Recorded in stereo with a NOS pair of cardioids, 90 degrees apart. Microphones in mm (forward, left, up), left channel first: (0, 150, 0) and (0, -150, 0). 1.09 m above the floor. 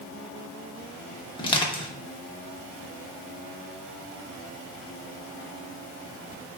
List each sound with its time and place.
1.4 s crushing: 15° left, 0.8 m